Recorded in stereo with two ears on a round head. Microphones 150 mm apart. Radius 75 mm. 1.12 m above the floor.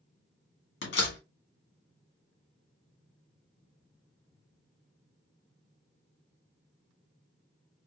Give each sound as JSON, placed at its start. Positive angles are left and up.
{"t": 0.8, "sound": "a door slam", "side_deg": 75, "distance_m": 1.9}